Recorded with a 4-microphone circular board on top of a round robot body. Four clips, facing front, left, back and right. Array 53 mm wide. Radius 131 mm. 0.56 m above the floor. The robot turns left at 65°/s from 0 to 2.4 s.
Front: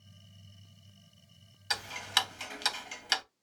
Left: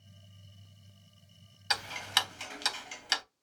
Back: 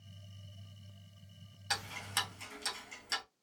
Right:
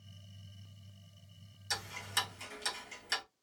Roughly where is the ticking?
Left.